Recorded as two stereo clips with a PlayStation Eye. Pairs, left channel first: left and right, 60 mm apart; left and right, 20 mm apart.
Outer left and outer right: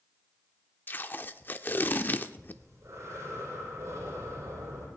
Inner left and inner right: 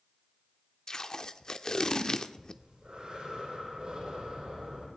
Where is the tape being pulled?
30° left (ahead or behind), 0.6 m.